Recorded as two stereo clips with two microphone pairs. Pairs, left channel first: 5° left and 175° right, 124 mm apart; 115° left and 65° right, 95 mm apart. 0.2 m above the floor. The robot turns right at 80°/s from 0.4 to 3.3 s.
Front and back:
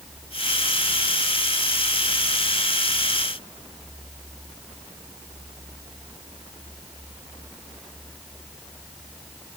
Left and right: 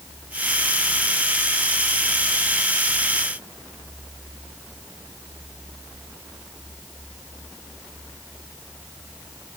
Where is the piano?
I don't hear a piano.